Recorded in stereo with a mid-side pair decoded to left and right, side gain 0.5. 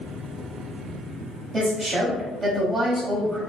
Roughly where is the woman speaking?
Ahead right.